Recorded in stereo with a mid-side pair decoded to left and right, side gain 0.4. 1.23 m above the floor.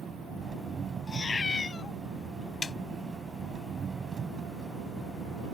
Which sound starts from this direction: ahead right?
An engine running, at 0.0 s.